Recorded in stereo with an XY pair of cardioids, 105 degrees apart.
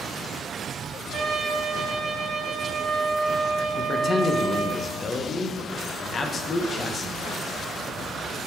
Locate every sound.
1.1 s a trumpet: 55° right, 1.0 m
3.8 s a man speaking: 35° left, 0.8 m